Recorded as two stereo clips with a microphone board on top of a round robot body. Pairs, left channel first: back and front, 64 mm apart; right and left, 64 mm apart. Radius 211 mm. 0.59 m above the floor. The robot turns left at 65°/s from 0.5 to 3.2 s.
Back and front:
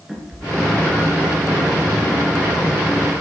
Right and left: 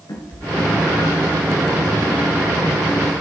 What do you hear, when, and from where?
0.1 s a cat meowing: 85° right, 3.5 m; by 1.4 s 145° right, 3.5 m